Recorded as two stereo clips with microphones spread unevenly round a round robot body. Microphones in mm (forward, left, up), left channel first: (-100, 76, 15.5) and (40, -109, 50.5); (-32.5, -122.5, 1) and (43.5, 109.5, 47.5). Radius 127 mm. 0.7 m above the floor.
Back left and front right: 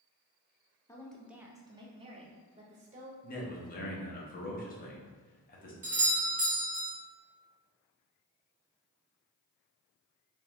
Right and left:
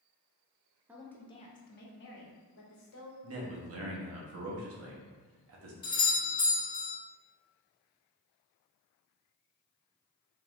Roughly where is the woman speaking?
Behind.